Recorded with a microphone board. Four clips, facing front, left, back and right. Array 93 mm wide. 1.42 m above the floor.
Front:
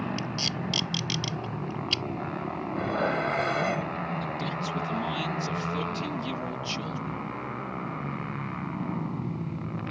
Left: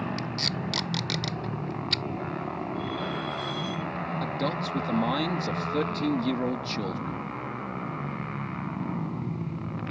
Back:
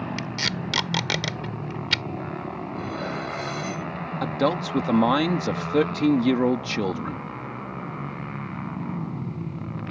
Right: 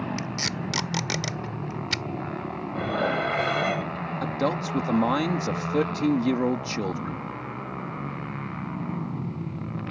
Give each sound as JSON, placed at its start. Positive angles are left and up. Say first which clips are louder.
{"t": 0.2, "sound": "tape being pulled", "louder": "right 1 dB, back 3 dB", "azimuth_deg": -165}
{"t": 2.7, "sound": "dishes clattering", "louder": "right 6 dB, front 5 dB", "azimuth_deg": -60}
{"t": 4.2, "sound": "a man speaking", "louder": "right 5 dB, back 8 dB", "azimuth_deg": -165}